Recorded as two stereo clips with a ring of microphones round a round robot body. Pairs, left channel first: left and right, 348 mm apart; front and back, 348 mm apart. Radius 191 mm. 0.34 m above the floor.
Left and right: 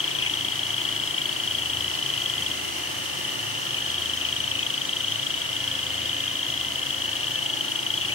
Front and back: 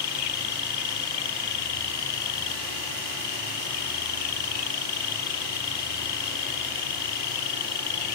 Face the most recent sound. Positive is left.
turn(degrees=35)